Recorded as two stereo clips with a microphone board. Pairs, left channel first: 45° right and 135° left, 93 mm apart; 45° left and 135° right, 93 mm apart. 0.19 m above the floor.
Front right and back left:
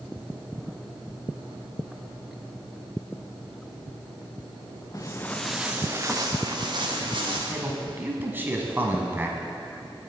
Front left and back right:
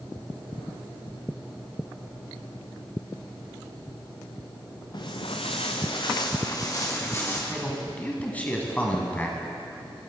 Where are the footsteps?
5° left, 1.3 m; by 7.4 s 105° left, 3.5 m.